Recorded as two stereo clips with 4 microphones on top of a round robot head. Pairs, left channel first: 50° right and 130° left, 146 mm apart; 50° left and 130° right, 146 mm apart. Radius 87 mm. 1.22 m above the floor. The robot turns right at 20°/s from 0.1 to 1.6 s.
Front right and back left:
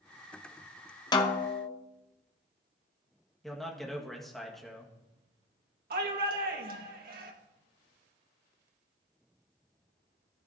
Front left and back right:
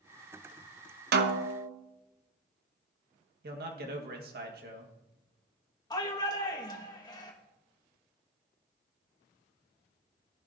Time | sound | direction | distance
1.1 | a snare drum | 115° right | 0.8 m
3.4 | a man speaking | 135° right | 1.9 m
5.9 | a shout | 110° left | 2 m